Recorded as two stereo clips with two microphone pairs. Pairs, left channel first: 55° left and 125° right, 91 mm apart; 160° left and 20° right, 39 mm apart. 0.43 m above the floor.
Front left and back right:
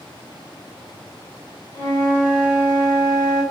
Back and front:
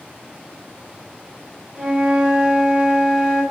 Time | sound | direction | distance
1.7 | a flute | 80° right | 2.5 m